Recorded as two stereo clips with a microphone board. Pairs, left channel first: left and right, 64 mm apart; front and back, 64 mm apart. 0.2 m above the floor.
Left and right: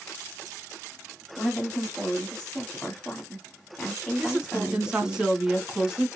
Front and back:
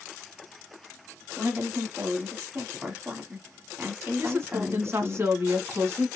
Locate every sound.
1.4 s a woman speaking: 160° left, 1.2 m
4.2 s a woman speaking: 165° right, 1.6 m